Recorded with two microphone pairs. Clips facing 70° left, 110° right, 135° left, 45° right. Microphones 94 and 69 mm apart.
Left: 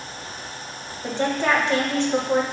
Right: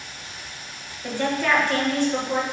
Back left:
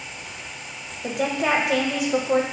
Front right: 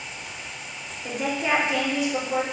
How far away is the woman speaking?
About 0.8 m.